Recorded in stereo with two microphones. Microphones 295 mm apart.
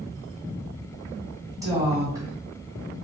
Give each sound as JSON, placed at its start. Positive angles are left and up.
{"t": 1.6, "sound": "a woman speaking", "side_deg": -10, "distance_m": 1.6}